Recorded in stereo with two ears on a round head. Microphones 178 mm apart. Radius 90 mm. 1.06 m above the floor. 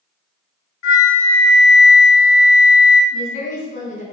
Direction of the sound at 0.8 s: 75° left (ahead or behind).